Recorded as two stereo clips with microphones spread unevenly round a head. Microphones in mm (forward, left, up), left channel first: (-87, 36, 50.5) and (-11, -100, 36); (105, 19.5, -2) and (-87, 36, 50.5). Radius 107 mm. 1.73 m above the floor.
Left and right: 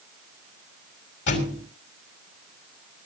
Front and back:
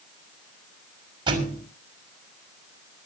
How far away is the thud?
About 5.5 m.